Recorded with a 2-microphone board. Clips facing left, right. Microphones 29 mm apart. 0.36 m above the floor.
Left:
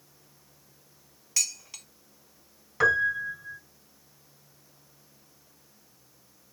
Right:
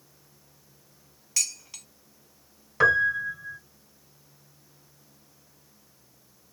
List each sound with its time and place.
1.4 s dishes clattering: centre (ahead or behind), 0.6 m
2.8 s a piano: 10° right (ahead or behind), 1.4 m